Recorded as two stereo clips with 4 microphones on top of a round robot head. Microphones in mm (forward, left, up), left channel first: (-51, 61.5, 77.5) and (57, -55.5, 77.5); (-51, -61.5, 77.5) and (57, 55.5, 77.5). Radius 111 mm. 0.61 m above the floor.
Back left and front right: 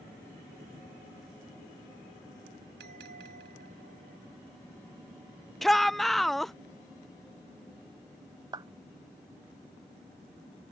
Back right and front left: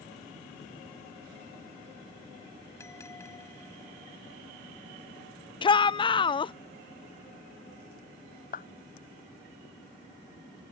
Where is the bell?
60° right.